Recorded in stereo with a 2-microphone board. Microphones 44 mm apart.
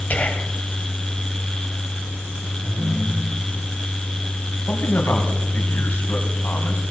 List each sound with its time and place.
0.1 s whispering: 35° left (ahead or behind), 1.8 m
2.6 s a ringtone: 80° right, 6 m
4.7 s a man speaking: 60° left (ahead or behind), 3 m